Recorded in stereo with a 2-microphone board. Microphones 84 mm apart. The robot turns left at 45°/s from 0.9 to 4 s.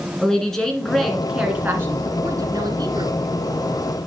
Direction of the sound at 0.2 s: 10° left.